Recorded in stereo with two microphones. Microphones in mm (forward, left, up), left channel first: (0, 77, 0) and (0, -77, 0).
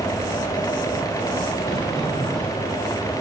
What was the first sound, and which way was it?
A sliding door, 5° left (ahead or behind).